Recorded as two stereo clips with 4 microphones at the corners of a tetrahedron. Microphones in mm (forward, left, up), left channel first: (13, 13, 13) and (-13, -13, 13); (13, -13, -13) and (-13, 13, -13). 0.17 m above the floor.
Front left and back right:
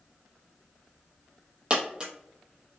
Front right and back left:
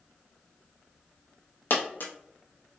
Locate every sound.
1.7 s a dropped coin: 70° right, 0.7 m